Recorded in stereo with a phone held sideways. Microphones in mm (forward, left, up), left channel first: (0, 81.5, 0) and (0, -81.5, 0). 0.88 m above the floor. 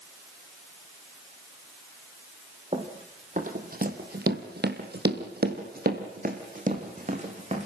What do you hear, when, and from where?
2.7 s running footsteps: 35° right (ahead or behind), 3 m; by 7.7 s 40° right (ahead or behind), 4.5 m